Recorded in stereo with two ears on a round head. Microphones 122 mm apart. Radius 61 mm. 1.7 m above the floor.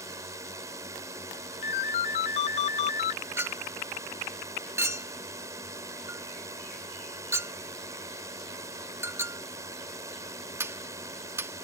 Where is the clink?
20° right (ahead or behind).